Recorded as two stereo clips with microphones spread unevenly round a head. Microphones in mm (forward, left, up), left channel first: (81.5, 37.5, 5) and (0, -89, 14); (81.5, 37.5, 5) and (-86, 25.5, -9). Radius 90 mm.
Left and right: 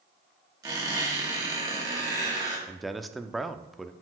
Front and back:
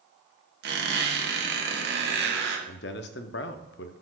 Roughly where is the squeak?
Behind.